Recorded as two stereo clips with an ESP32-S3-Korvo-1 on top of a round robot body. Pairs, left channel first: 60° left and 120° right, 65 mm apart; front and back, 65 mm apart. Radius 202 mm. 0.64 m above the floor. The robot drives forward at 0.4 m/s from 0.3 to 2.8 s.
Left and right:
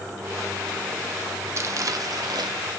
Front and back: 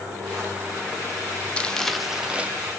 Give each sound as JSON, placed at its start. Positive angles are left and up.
{"t": 1.6, "sound": "crumpling", "azimuth_deg": -75, "distance_m": 0.6}